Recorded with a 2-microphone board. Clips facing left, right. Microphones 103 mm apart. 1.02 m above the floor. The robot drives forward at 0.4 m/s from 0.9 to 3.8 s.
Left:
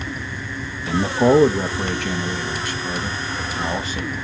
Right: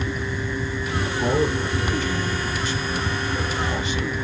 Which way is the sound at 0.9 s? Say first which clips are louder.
Left 9 dB; 65° left (ahead or behind).